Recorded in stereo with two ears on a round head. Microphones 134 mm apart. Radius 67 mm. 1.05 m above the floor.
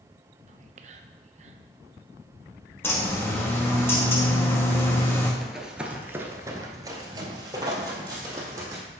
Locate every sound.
0.5 s whispering: 50° right (ahead or behind), 0.7 m
2.8 s a bird: 15° left (ahead or behind), 1.3 m
5.4 s running footsteps: centre (ahead or behind), 1.3 m; by 8.8 s 20° right (ahead or behind), 3 m